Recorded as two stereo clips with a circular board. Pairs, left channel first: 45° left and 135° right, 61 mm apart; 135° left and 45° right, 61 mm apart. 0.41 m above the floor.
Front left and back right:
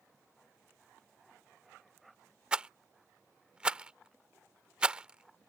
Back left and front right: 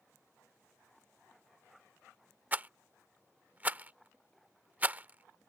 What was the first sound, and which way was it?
A rattle, 75° right.